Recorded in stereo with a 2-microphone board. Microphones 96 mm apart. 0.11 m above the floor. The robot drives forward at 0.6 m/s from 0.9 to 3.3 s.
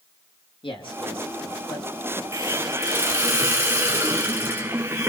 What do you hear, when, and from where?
0.6 s a man speaking: 65° left (ahead or behind), 5 m; by 2.2 s 70° left (ahead or behind), 5 m
2.3 s a hiss: 30° right (ahead or behind), 1.6 m; by 5.1 s 25° right (ahead or behind), 2 m